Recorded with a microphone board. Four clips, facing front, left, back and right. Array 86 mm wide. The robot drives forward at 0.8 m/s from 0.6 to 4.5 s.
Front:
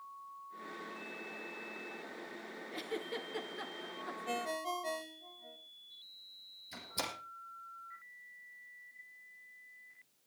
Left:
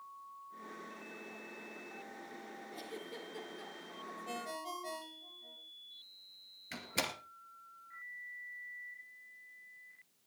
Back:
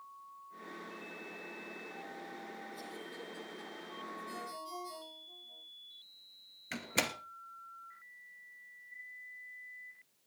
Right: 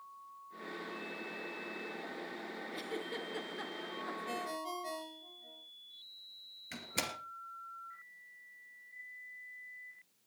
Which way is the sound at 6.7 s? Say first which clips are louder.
Left 1 dB, back 5 dB; 175° left.